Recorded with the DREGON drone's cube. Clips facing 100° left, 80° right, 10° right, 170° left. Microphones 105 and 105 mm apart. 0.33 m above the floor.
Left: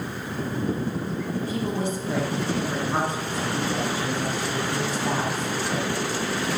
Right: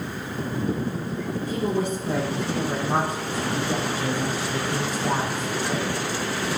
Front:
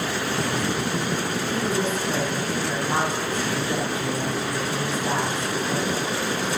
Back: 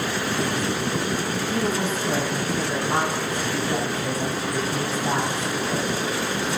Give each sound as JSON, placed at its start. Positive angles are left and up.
{"t": 1.5, "sound": "a woman speaking", "azimuth_deg": -105, "distance_m": 5.5}